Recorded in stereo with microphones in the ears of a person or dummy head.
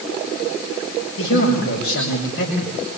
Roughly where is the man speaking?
Left.